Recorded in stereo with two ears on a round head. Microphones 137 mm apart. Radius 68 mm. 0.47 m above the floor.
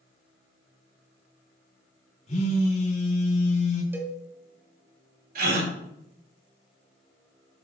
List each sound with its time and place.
2.3 s a phone buzzing: 50° left (ahead or behind), 3 m
3.9 s a cowbell: 15° right (ahead or behind), 1.3 m
5.3 s a gasp: 65° right (ahead or behind), 3.5 m